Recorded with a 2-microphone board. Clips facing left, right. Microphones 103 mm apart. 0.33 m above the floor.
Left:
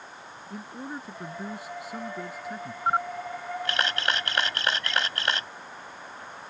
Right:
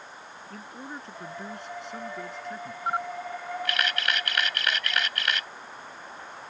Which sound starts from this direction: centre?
A man speaking, at 0.5 s.